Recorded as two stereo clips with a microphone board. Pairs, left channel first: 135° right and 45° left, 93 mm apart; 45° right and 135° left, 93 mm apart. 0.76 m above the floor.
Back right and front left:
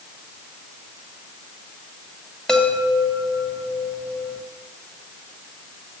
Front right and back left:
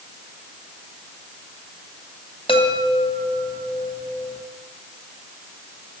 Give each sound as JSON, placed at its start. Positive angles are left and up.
{"t": 2.5, "sound": "a chime", "azimuth_deg": -50, "distance_m": 2.5}